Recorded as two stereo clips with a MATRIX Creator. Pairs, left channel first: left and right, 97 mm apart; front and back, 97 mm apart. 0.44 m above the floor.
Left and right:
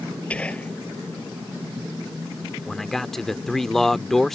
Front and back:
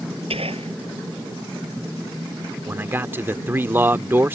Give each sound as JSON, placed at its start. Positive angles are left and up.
{"t": 0.3, "sound": "whispering", "azimuth_deg": 170}
{"t": 2.7, "sound": "a man speaking", "azimuth_deg": 170}